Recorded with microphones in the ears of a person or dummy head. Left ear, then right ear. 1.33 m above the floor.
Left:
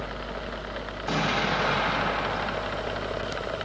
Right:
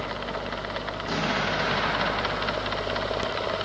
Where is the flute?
I don't hear a flute.